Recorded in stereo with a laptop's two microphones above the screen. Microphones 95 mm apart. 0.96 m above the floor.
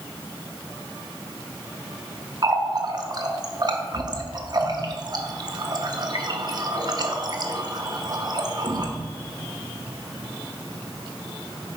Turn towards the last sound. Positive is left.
turn(degrees=-45)  # may be behind; listen again after turning